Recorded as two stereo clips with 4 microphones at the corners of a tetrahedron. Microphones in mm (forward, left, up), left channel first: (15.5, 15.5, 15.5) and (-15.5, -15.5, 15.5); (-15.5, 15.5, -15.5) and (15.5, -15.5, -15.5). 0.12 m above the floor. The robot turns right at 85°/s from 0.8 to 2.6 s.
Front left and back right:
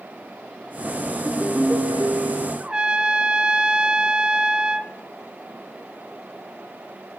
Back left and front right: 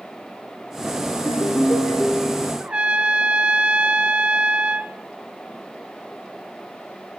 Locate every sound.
1.1 s a ringtone: 120° left, 2.5 m; by 2.5 s 125° right, 2.5 m
2.6 s a trumpet: 85° right, 0.9 m